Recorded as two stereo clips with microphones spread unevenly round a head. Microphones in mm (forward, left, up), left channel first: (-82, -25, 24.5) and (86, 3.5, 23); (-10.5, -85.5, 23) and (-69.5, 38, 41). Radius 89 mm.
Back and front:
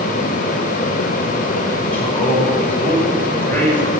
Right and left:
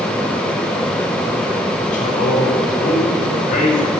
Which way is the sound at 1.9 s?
90° right.